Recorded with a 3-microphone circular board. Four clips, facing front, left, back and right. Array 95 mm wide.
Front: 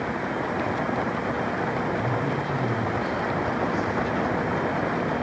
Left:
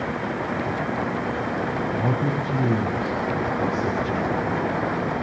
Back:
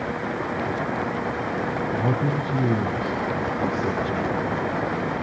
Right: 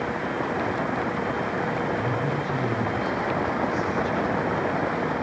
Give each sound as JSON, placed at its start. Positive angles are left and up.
{"t": 1.9, "sound": "a man speaking", "azimuth_deg": 135, "distance_m": 7.5}